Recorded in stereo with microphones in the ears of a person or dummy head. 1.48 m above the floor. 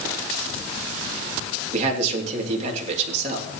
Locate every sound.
1.7 s a man speaking: 45° right (ahead or behind), 3 m